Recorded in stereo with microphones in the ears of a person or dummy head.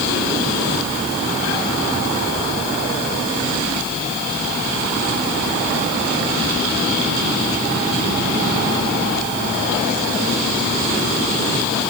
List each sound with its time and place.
Only background noise.